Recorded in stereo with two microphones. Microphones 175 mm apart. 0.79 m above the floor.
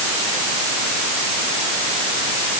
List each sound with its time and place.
Only background noise.